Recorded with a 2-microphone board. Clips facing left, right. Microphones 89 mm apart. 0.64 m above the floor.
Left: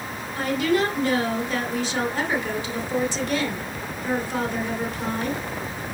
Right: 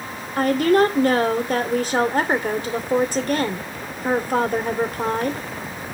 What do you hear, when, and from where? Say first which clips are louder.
0.4 s a woman speaking: right 6 dB; 50° right (ahead or behind), 2.5 m